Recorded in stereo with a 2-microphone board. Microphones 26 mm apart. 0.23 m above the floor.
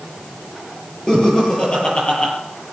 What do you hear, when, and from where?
1.1 s laughter: 35° left (ahead or behind), 5.5 m; by 2.3 s 40° left (ahead or behind), 5.5 m